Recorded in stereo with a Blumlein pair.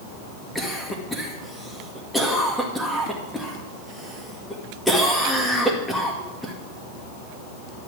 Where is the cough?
Straight ahead, 2 m.